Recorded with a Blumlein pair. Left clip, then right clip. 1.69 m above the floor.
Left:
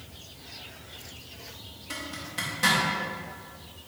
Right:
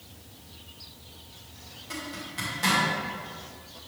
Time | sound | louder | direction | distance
1.9 | a zipper | left 1 dB | 10° left | 2.5 m